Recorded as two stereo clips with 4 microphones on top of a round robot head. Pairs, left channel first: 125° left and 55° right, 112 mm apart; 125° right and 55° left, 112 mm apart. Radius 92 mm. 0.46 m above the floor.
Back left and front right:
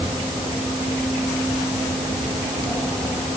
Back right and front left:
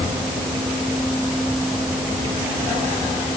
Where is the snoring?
No snoring in this recording.